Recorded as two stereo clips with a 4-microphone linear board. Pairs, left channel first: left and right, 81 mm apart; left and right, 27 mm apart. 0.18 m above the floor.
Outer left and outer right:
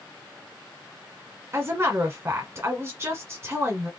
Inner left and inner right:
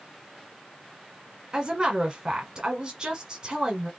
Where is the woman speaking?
35° right (ahead or behind), 1.5 m.